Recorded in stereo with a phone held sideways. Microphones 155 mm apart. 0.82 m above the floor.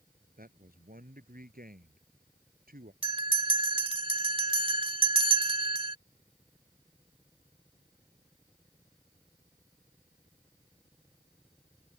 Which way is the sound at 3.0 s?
35° right (ahead or behind).